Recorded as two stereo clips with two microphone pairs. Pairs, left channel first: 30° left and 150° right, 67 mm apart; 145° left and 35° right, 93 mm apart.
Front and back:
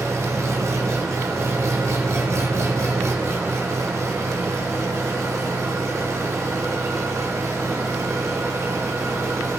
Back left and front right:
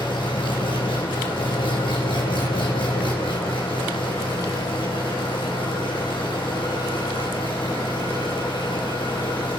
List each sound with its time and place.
0.0 s an engine running: 165° left, 4.5 m